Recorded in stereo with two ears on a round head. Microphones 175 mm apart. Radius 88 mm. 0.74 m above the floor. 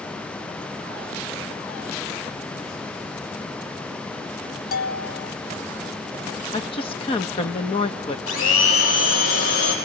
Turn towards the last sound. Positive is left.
turn(degrees=80)